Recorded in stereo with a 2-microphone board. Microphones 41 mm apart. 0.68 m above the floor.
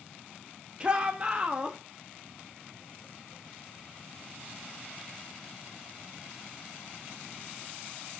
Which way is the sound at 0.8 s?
25° right (ahead or behind).